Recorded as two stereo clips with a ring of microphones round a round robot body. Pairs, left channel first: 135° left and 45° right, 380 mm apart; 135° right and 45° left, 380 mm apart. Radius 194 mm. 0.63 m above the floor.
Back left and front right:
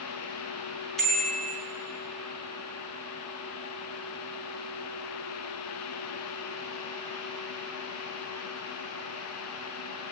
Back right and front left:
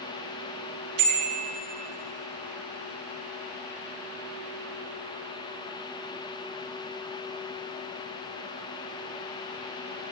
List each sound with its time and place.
1.0 s a bicycle bell: 45° left, 6 m